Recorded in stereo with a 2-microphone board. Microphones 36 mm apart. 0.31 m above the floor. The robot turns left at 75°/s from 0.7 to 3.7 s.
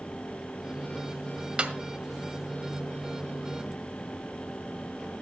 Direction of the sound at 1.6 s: 30° right (ahead or behind).